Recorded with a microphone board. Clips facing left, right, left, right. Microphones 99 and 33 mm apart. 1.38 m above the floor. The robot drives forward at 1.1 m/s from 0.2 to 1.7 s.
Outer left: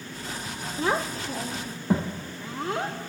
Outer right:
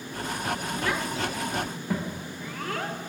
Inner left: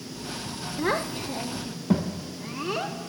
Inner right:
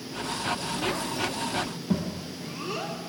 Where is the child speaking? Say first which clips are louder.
Outer left 6 dB, inner left 2 dB; 30° left (ahead or behind), 0.6 m; by 3.0 s 20° left (ahead or behind), 0.8 m.